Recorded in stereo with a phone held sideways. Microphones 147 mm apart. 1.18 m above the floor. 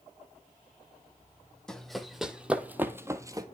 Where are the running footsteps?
5° left (ahead or behind), 1.7 m; by 3.5 s 25° right (ahead or behind), 1.3 m.